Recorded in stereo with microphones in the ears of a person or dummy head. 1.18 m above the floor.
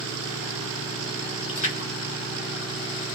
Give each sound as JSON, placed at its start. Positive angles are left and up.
{"t": 1.5, "sound": "a splash", "side_deg": 40, "distance_m": 1.1}